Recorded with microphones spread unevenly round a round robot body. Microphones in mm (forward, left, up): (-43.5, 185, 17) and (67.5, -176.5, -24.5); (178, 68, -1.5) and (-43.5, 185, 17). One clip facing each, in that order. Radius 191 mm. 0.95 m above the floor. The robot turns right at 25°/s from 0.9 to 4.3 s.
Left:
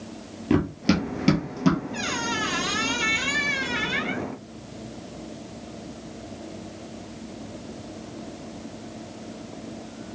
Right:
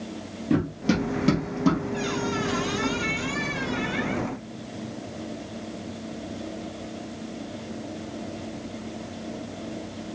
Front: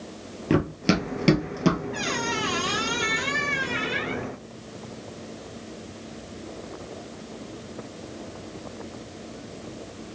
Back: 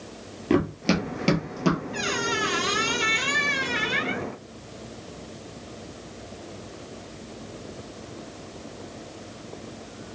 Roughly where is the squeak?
Ahead left.